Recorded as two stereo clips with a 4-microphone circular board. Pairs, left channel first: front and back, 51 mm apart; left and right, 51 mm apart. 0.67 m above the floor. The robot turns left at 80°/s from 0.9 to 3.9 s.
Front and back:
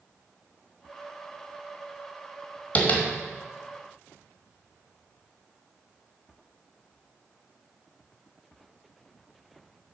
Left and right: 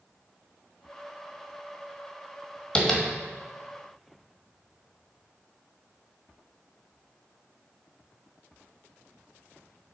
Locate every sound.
2.8 s tapping: 25° left, 1.3 m; by 3.0 s 5° left, 1.3 m